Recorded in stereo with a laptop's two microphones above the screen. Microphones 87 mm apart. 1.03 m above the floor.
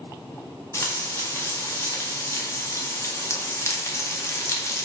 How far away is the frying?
About 0.5 m.